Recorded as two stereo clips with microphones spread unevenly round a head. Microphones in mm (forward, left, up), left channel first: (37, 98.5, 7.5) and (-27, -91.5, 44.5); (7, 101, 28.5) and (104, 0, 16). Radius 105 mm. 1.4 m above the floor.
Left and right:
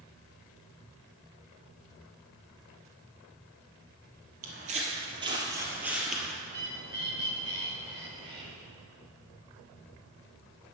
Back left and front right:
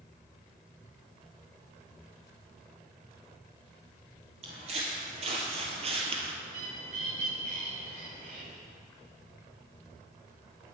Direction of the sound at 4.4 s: 95° right.